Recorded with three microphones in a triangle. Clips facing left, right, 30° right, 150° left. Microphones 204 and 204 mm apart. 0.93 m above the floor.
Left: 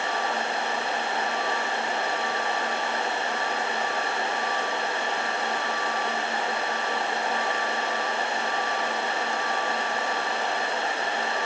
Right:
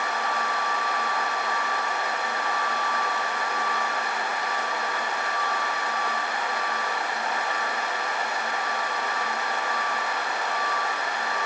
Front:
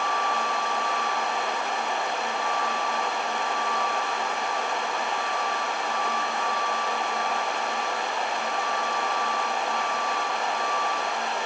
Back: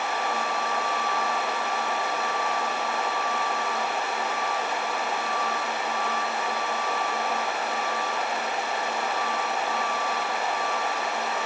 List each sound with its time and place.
Only background noise.